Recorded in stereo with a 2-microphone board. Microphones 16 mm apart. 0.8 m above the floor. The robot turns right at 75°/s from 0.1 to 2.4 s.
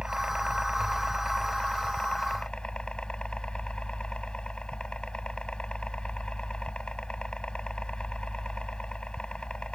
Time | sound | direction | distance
0.0 | a helicopter | 115° right | ?